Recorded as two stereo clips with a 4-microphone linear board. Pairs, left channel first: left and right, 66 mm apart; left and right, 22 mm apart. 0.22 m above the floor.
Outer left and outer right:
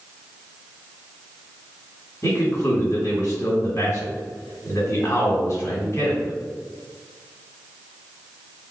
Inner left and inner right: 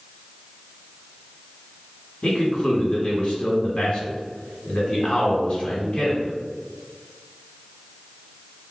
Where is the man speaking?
45° left (ahead or behind), 1.6 m.